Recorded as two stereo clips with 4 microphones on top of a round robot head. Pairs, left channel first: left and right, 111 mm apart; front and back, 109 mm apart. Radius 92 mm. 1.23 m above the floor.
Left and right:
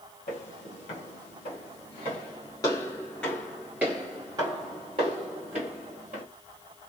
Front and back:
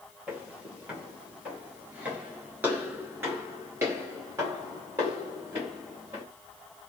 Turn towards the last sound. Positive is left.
turn(degrees=-105)